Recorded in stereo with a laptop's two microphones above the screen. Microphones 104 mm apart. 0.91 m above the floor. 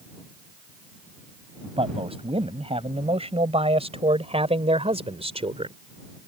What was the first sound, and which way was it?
A man speaking, 70° right (ahead or behind).